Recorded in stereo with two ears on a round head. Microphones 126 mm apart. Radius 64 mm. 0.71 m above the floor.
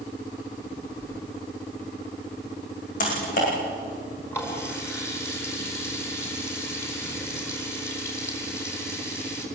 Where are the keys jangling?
20° left (ahead or behind), 9 m.